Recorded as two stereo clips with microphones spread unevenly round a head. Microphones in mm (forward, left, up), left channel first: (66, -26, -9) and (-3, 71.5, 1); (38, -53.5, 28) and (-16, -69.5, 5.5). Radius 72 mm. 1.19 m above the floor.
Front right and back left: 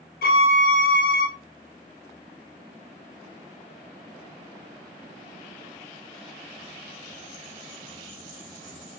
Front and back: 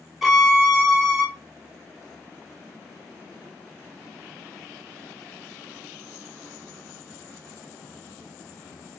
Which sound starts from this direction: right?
A violin, at 0.2 s.